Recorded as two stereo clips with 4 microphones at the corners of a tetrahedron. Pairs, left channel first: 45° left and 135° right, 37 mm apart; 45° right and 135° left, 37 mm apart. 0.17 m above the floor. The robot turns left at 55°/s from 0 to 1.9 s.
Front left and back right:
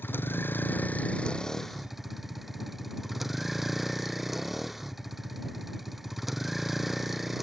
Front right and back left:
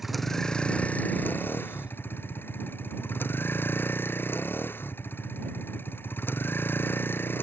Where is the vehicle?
55° left; by 7.4 s 50° right.